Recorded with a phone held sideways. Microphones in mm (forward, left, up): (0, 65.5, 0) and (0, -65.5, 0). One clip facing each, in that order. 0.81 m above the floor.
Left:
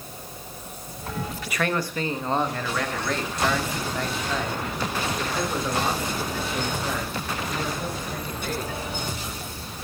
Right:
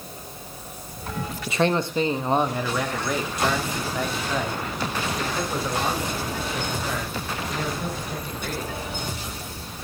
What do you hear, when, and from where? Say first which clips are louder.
1.5 s a man speaking: right 5 dB; 25° right (ahead or behind), 0.8 m; by 8.8 s centre (ahead or behind), 4.5 m